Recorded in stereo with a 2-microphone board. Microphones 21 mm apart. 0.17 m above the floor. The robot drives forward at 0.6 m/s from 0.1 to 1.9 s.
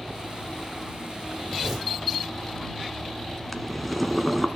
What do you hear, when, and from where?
1.6 s tearing paper: 25° right (ahead or behind), 9 m
3.5 s boiling: centre (ahead or behind), 1.2 m